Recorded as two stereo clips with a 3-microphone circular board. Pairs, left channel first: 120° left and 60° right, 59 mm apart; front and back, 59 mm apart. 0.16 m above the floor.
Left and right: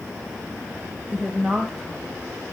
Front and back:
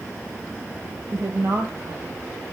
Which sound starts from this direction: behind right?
A woman speaking, at 1.1 s.